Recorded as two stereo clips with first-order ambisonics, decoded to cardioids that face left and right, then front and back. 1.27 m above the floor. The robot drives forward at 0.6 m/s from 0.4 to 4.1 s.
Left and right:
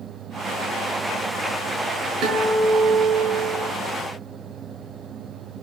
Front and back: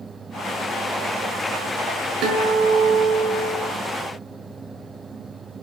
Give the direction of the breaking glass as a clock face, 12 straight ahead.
No breaking glass in this recording.